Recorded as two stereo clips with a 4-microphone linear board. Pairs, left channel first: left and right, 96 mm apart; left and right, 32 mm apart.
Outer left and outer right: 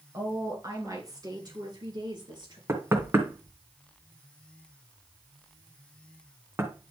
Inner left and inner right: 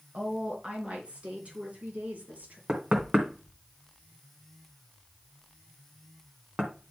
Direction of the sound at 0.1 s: 30° right (ahead or behind).